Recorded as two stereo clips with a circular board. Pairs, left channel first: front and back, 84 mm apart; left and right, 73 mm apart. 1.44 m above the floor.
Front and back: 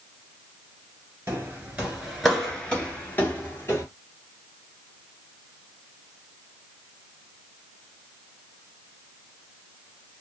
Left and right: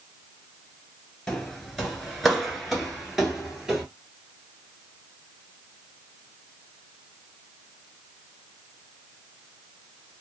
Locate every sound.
1.3 s footsteps: 170° left, 1.5 m; by 3.9 s 10° right, 1.7 m